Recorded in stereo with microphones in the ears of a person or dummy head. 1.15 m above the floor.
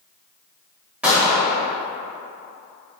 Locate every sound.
1.0 s a gunshot: 10° right (ahead or behind), 1.1 m